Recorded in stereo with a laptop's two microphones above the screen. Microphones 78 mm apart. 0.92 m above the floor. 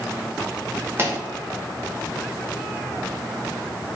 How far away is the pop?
About 0.9 m.